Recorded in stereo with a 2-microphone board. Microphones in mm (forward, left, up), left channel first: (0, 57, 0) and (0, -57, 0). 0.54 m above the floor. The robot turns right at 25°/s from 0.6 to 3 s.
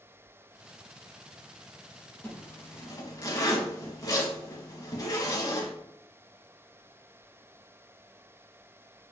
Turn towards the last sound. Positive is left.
turn(degrees=30)  # may be behind; listen again after turning